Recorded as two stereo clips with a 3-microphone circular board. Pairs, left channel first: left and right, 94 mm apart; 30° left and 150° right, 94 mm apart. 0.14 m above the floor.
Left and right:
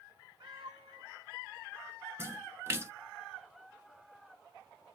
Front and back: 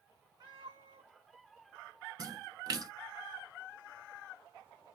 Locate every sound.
0.4 s a cat meowing: 110° right, 2 m
2.2 s a splash: 140° right, 0.6 m